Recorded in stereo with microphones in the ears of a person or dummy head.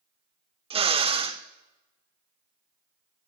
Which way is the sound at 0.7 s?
25° right (ahead or behind).